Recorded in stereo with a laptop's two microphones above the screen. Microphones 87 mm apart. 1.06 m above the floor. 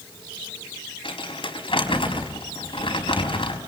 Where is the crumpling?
85° left, 4.5 m.